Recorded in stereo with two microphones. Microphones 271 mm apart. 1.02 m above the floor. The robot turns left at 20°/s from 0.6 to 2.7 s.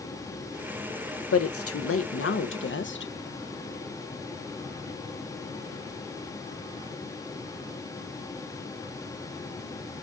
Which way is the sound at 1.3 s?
60° left (ahead or behind).